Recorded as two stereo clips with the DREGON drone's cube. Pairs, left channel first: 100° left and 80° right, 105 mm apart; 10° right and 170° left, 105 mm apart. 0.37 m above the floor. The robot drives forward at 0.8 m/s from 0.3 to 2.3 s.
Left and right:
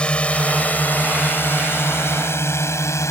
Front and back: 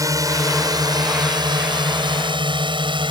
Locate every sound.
0.0 s a drone: 170° left; by 3.1 s 155° left